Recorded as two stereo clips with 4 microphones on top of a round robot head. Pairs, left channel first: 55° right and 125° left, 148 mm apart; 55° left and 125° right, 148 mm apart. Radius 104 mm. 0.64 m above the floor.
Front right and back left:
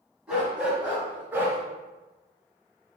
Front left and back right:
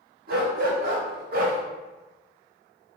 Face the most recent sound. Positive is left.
turn(degrees=-160)